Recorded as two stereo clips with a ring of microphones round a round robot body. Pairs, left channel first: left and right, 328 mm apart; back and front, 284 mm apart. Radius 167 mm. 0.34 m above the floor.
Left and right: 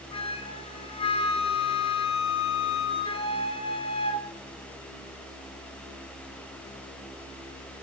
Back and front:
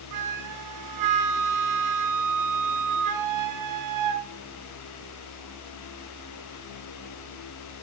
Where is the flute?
15° left, 1.2 m.